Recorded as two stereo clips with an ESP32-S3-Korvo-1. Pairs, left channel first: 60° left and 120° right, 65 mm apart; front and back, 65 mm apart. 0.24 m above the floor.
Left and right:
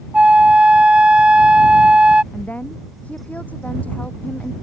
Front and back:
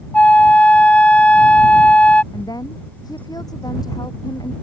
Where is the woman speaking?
10° right.